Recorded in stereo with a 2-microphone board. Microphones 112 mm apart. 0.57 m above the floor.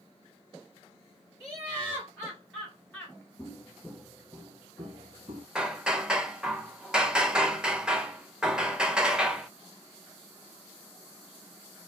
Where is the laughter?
15° right (ahead or behind), 1.8 m; by 3.2 s 20° left (ahead or behind), 1.1 m.